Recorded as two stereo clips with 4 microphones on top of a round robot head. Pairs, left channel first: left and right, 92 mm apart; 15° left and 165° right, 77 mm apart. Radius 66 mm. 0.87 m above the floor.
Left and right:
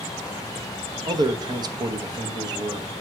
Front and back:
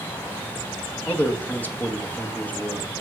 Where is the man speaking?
55° right, 1.1 m.